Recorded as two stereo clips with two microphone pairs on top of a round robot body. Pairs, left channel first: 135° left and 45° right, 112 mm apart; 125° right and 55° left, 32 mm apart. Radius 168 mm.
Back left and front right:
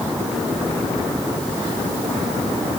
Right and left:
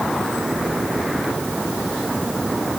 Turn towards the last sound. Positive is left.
No sound to turn to.